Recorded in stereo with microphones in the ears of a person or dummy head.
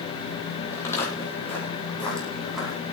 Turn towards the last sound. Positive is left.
turn(degrees=5)  # may be behind; listen again after turning